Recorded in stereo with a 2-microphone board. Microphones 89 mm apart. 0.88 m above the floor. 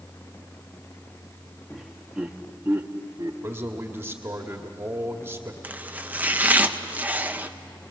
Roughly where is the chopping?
Centre.